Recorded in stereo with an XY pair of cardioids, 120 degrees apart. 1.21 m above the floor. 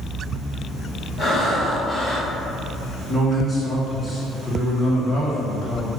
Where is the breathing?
50° left, 1.5 m.